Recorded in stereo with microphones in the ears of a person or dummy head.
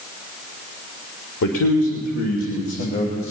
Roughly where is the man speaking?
Left.